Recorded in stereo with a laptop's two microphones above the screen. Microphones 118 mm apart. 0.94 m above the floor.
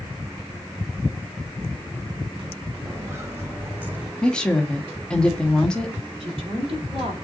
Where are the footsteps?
25° right (ahead or behind), 2.5 m; by 4.1 s 15° right (ahead or behind), 3 m.